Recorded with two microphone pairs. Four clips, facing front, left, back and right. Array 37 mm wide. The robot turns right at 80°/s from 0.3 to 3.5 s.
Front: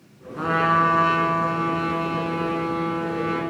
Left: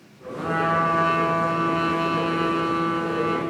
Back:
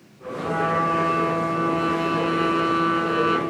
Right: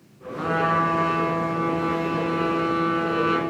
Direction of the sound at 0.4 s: 20° right.